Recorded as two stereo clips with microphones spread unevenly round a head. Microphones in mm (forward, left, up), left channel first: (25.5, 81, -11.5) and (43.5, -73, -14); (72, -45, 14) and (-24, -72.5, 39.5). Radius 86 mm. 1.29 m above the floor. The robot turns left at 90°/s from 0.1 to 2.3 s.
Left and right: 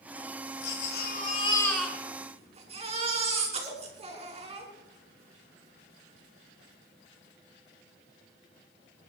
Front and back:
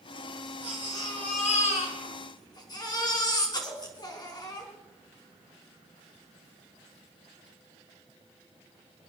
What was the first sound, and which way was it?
A baby crying, 120° left.